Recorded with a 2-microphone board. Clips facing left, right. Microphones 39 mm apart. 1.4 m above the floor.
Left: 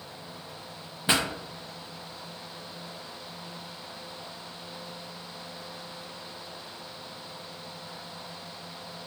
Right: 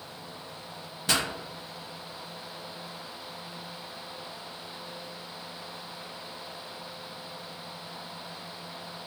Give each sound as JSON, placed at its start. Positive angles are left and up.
{"t": 1.1, "sound": "a pop", "side_deg": 20, "distance_m": 0.6}